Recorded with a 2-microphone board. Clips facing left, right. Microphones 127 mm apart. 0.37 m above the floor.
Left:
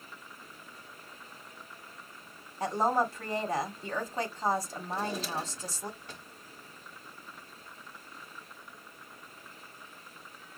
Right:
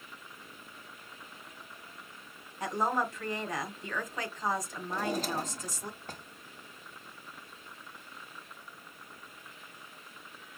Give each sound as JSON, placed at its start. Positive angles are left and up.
{"t": 2.6, "sound": "a woman speaking", "side_deg": 35, "distance_m": 1.8}
{"t": 4.9, "sound": "a drawer", "side_deg": -45, "distance_m": 1.4}